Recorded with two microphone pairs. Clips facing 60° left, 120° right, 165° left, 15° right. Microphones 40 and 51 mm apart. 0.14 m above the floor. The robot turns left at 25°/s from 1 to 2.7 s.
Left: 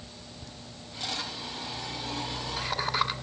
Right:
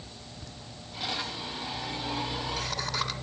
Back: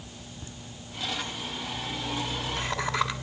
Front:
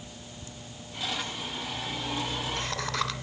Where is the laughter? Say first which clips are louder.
Even, even; 145° left, 1.8 m; by 3.1 s 100° left, 1.8 m.